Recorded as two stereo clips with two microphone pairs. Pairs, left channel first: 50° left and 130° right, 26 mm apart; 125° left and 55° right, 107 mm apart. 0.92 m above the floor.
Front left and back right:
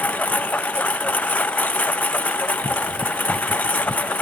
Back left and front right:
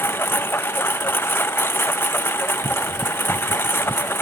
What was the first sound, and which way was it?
A lawn mower, 55° left.